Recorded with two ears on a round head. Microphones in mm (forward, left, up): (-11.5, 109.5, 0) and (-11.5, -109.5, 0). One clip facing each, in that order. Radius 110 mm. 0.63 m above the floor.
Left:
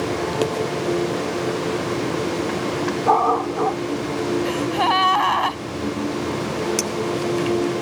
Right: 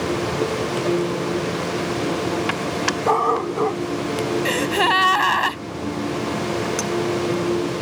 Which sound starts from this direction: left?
A clink, at 6.8 s.